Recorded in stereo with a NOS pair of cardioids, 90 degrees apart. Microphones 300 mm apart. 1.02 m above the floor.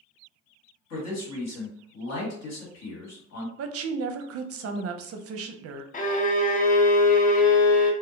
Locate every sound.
0.9 s a man speaking: 60° left, 1.6 m
3.6 s a woman speaking: 55° right, 0.5 m
5.9 s a violin: 30° left, 0.5 m